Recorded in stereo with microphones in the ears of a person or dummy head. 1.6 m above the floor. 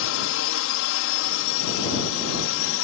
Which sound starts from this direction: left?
A drone, at 0.0 s.